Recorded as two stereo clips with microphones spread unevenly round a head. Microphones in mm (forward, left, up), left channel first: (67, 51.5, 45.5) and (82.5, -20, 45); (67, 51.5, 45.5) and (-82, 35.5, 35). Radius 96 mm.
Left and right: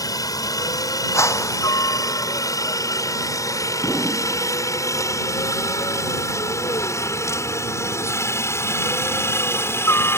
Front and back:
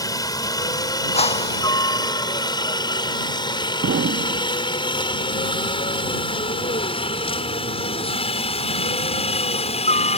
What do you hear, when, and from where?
0.0 s a helicopter: 70° left; by 10.2 s 50° left
1.1 s a whoosh: 55° left
3.8 s an explosion: 175° right